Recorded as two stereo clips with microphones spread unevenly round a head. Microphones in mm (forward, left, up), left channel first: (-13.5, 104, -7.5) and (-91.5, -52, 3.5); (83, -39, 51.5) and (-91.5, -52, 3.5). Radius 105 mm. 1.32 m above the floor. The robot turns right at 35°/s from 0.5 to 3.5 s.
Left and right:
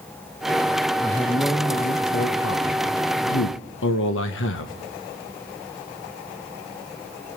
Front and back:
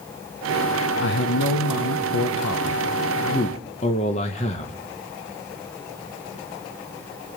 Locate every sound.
1.0 s a man speaking: 20° right, 1.1 m; by 4.8 s 65° left, 1.1 m